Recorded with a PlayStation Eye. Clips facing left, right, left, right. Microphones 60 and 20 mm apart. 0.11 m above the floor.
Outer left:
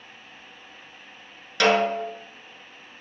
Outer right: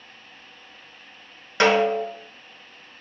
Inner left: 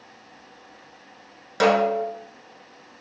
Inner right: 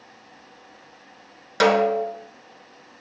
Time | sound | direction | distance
1.6 | a snare drum | 25° right (ahead or behind) | 1.1 m